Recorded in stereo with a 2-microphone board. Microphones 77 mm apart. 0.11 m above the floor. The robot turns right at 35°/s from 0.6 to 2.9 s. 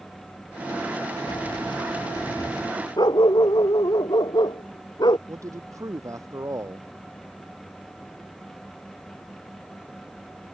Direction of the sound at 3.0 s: 65° left (ahead or behind).